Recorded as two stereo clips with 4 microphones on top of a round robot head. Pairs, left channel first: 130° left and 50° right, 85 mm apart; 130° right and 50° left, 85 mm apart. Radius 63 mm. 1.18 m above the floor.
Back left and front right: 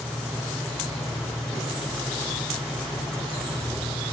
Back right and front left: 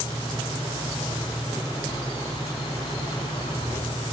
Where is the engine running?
150° right, 6 m.